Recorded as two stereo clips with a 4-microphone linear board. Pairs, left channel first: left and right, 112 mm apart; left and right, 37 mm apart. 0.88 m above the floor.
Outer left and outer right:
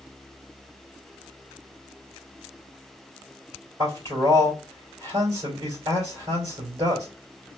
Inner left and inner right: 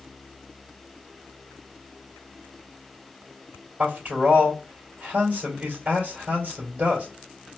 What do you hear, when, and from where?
3.8 s a man speaking: 30° right (ahead or behind), 2.5 m